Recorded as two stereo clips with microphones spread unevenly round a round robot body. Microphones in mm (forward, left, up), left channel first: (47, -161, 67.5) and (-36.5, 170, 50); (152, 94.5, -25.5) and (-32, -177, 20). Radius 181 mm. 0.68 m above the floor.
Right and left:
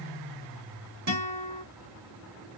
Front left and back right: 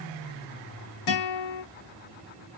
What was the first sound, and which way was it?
A guitar, 60° left.